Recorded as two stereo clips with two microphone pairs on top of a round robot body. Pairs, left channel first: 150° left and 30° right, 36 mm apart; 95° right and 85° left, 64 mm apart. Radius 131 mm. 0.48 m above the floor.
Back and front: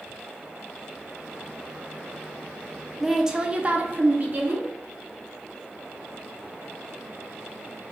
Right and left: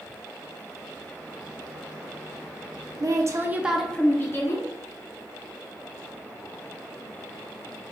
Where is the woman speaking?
55° left, 1.2 m; by 4.7 s 70° right, 1.5 m.